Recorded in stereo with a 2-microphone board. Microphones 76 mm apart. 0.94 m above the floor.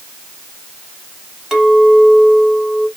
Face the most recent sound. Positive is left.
turn(degrees=-10)  # may be behind; listen again after turning